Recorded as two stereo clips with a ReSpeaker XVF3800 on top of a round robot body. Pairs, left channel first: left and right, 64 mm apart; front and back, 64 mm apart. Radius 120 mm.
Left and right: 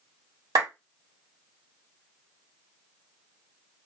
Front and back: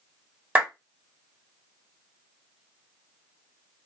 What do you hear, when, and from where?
0.6 s a clap: 110° right, 1.3 m